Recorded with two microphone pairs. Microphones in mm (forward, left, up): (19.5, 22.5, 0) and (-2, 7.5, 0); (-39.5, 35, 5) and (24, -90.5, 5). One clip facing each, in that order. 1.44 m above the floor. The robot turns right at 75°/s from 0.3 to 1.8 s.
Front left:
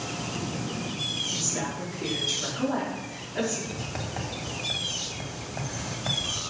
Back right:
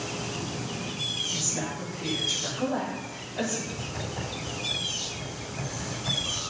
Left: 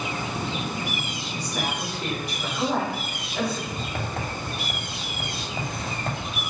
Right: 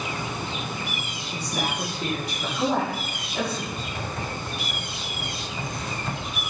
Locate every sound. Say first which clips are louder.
1.3 s a woman speaking: front left 1 dB, right 2 dB; 45° right, 3.5 m; by 3.6 s 5° right, 3.5 m
3.7 s writing: front left 1 dB, left 1 dB; 80° left, 2.5 m